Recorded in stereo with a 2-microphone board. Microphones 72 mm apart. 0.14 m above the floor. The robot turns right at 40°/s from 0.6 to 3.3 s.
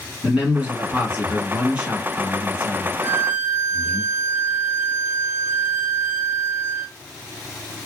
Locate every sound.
0.2 s a man speaking: 20° right (ahead or behind), 1.0 m; by 4.0 s 5° right (ahead or behind), 1.0 m
3.0 s a violin: 30° right (ahead or behind), 0.5 m; by 6.9 s 40° right (ahead or behind), 0.5 m